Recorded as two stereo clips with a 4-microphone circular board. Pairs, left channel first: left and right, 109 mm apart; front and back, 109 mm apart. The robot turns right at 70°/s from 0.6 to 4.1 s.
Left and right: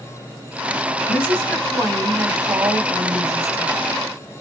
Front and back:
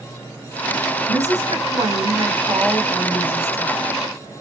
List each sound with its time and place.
1.1 s a woman speaking: 140° left, 1.7 m; by 4.1 s 10° right, 1.7 m